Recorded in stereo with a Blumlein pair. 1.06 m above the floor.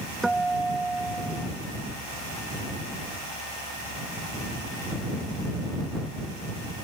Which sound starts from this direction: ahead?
A guitar, at 0.2 s.